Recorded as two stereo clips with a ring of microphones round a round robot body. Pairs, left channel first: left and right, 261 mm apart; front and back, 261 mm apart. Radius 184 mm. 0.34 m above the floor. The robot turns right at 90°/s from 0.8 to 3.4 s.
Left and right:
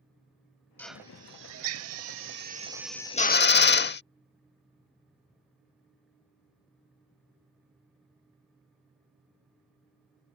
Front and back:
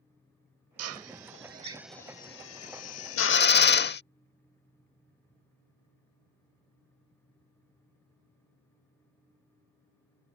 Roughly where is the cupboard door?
No cupboard door in this recording.